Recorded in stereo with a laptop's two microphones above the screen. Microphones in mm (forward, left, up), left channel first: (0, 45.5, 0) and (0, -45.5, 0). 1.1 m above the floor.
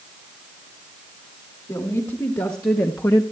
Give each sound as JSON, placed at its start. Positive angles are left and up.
{"t": 1.7, "sound": "a woman speaking", "side_deg": 40, "distance_m": 2.5}